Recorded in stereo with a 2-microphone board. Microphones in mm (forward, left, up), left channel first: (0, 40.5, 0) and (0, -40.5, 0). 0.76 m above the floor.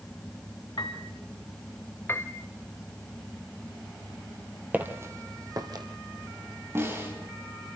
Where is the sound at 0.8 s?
60° left (ahead or behind), 1.7 m.